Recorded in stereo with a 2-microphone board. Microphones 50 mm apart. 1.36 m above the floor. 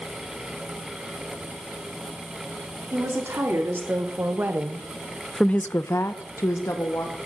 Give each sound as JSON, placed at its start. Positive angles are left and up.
{"t": 2.9, "sound": "a woman speaking", "side_deg": -55, "distance_m": 3.0}